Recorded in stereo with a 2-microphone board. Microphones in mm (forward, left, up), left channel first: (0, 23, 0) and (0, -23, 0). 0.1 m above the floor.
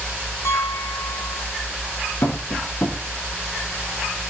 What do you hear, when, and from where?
0.5 s a piano: 70° left (ahead or behind), 5 m
2.2 s tapping: 75° left (ahead or behind), 5.5 m